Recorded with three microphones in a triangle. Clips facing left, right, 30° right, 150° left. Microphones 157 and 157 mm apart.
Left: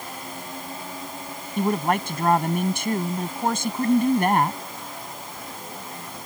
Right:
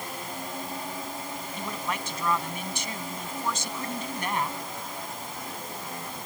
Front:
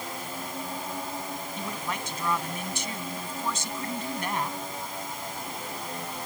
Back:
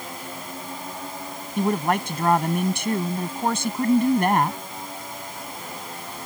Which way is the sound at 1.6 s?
125° left.